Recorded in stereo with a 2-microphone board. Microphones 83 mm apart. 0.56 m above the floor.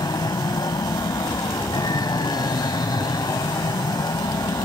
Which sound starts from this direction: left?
An aircraft, at 0.0 s.